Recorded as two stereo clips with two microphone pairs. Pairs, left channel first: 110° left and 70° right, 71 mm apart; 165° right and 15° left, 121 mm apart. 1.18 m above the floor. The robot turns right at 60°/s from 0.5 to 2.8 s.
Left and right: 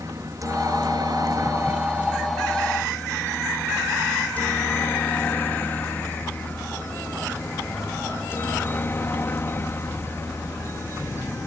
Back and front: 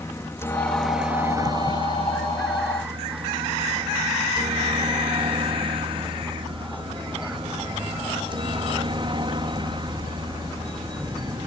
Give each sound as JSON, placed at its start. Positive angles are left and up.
{"t": 0.0, "sound": "a helicopter", "azimuth_deg": -100}